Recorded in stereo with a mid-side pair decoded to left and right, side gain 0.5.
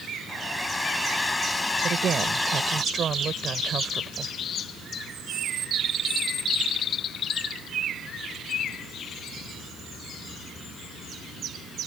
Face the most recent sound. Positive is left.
turn(degrees=-45)